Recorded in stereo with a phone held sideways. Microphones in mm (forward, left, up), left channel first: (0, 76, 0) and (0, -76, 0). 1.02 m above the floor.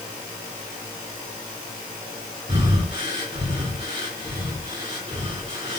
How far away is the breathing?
About 2.5 m.